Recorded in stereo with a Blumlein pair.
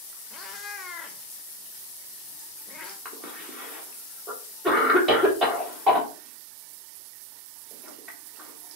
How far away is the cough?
About 1.1 m.